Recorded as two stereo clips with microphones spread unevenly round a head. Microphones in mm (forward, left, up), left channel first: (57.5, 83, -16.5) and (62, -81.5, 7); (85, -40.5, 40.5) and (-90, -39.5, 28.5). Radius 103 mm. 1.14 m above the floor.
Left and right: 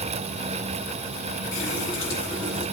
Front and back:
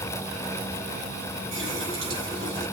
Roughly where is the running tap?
Behind left.